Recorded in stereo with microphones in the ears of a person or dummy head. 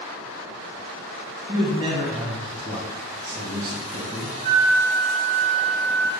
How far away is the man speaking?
About 1.5 m.